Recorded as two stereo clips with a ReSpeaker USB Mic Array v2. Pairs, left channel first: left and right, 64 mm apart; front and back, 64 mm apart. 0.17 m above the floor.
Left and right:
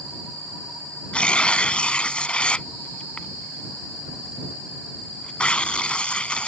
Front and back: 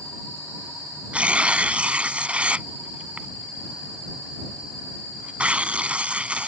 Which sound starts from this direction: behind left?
Tearing paper, at 1.1 s.